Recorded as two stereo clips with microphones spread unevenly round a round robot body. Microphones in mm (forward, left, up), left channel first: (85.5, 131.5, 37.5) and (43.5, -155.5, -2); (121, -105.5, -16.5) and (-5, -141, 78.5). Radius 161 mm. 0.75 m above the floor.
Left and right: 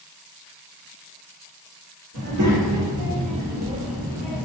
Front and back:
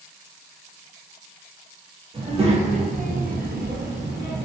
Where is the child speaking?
95° right, 1.1 m; by 4.5 s 170° left, 0.7 m.